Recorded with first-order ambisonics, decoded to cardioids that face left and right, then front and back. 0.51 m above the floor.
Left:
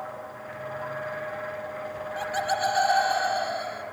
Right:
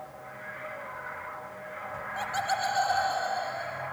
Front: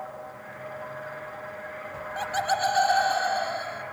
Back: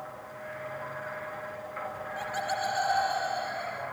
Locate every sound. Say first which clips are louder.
1.9 s laughter: left 1 dB, front 7 dB; 5° right, 1.3 m; by 3.8 s 55° left, 1.7 m